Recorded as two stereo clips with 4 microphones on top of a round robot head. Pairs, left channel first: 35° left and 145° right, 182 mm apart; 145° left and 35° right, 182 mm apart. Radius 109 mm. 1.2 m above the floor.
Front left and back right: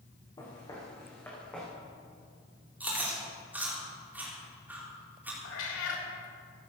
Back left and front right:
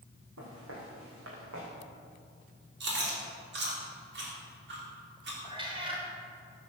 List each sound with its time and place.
0.4 s footsteps: 30° right, 5.5 m; by 1.7 s 50° right, 5 m
2.8 s chewing: 65° right, 4 m
5.4 s a cat meowing: 30° left, 3 m